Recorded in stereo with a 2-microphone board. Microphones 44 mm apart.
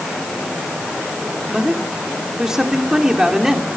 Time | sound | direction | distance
1.5 | a man speaking | 10° right (ahead or behind) | 2.5 m